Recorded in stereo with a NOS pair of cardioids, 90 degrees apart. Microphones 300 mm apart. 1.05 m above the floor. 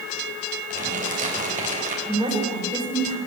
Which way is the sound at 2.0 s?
15° right.